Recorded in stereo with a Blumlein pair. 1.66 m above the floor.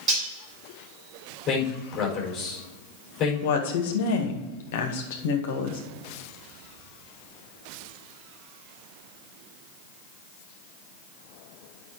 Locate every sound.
0.1 s cutlery clinking: 25° right, 3.5 m
1.5 s a man speaking: 25° left, 4.5 m
3.4 s a woman speaking: 55° left, 1.8 m